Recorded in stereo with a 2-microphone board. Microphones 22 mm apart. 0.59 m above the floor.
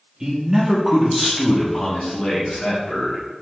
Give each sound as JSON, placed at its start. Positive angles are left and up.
{"t": 0.2, "sound": "a man speaking", "side_deg": -30, "distance_m": 0.8}